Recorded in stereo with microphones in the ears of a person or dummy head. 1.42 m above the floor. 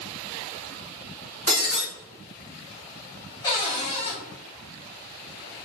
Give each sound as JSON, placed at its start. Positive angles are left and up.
{"t": 1.5, "sound": "breaking glass", "side_deg": -50, "distance_m": 1.6}
{"t": 3.4, "sound": "a cupboard door", "side_deg": 25, "distance_m": 0.6}